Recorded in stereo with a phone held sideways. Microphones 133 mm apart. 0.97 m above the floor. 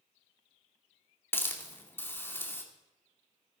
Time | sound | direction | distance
1.3 | a hiss | 15° left (ahead or behind) | 2 m